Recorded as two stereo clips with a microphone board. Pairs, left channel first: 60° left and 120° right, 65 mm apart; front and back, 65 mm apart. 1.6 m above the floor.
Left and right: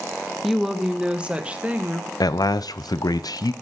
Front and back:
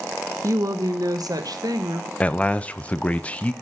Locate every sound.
0.4 s a woman speaking: 150° left, 1.0 m; by 2.1 s 175° left, 1.8 m
2.2 s a man speaking: 70° left, 0.7 m